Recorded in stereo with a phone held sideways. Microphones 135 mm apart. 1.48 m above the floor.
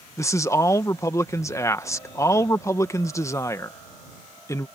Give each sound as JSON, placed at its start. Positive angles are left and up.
{"t": 0.2, "sound": "a man speaking", "side_deg": 20}